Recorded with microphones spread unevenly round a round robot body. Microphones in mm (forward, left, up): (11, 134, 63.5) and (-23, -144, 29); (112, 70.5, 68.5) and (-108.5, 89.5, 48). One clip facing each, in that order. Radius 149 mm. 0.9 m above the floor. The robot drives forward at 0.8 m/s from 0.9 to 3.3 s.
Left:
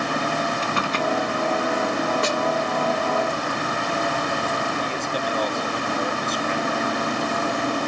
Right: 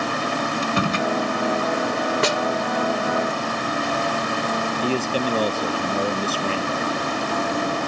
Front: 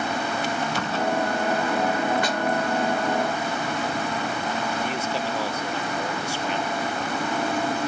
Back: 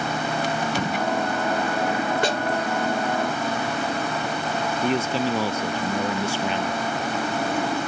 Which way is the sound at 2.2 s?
120° right.